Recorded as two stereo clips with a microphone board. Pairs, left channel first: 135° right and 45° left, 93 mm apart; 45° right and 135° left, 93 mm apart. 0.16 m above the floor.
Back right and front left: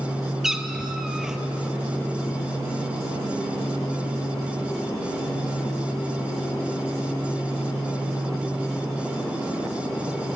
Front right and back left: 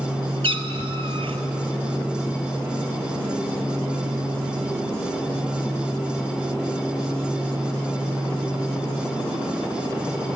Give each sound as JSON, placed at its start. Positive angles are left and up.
{"t": 0.4, "sound": "a cat meowing", "azimuth_deg": 130, "distance_m": 0.5}